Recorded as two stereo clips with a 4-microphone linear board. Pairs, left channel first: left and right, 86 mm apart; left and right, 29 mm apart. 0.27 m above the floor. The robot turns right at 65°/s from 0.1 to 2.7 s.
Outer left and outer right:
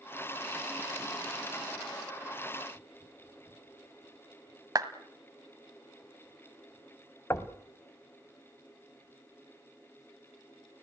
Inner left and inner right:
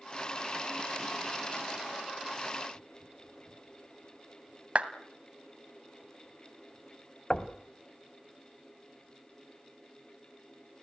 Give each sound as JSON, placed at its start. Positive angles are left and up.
{"t": 4.8, "sound": "a clap", "side_deg": -45, "distance_m": 1.5}
{"t": 7.3, "sound": "knocking", "side_deg": 35, "distance_m": 1.2}